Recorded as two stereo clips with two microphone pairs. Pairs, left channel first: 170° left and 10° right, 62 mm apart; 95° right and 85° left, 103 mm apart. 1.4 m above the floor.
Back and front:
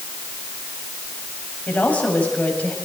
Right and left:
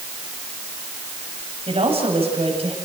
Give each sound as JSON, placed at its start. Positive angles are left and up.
{"t": 1.7, "sound": "a woman speaking", "azimuth_deg": 100, "distance_m": 7.5}